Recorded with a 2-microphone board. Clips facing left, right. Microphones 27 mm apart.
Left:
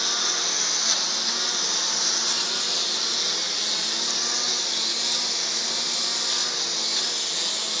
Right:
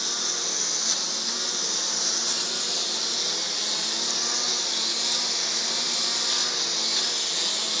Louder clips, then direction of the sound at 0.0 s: Left 4 dB; 25° left (ahead or behind).